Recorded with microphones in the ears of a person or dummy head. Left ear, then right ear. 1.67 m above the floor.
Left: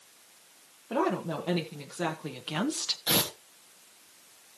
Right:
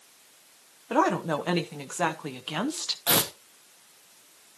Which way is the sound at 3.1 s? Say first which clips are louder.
Right 3 dB; 35° right (ahead or behind).